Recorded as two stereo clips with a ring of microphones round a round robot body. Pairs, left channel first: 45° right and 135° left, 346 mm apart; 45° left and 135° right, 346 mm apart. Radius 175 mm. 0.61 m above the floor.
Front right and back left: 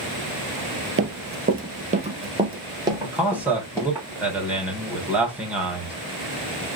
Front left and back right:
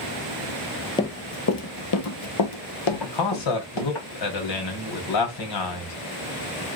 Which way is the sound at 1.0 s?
115° left.